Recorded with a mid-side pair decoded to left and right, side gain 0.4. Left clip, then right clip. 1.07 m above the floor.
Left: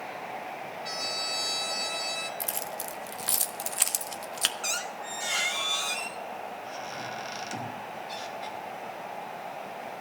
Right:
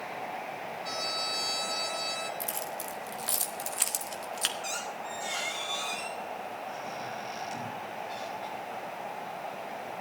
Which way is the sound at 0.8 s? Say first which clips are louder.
Left 1 dB; 20° left.